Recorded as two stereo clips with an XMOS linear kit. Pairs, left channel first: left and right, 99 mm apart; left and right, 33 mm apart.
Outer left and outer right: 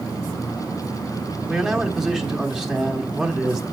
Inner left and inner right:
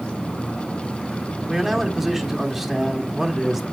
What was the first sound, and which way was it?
A man speaking, 5° right (ahead or behind).